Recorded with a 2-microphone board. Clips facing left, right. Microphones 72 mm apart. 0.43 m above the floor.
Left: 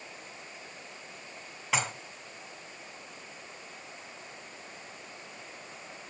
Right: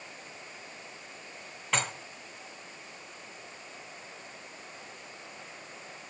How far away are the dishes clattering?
About 2 m.